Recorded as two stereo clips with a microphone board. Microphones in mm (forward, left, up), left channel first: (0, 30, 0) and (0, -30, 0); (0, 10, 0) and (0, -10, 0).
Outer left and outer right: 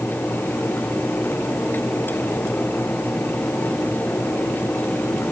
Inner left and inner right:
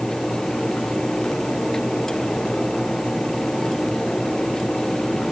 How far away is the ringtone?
I don't hear a ringtone.